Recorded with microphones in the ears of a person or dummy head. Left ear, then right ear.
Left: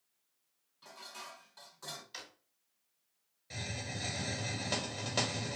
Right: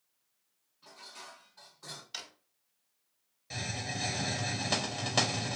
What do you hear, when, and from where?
0.8 s dishes clattering: 70° left (ahead or behind), 1.4 m
2.1 s a drawer: 15° right (ahead or behind), 0.8 m
3.5 s a hiss: 5° right (ahead or behind), 0.8 m